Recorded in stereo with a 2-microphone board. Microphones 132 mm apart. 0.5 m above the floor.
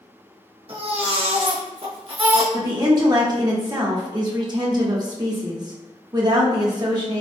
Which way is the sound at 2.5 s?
30° right (ahead or behind).